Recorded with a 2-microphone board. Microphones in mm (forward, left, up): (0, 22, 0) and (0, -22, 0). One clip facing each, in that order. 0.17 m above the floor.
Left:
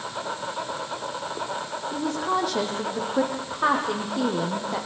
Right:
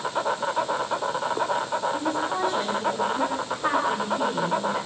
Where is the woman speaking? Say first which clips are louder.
Even; 80° left, 6.5 m.